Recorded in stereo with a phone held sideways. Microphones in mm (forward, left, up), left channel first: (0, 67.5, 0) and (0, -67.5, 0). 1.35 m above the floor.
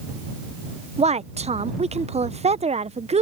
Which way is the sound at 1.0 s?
55° right (ahead or behind).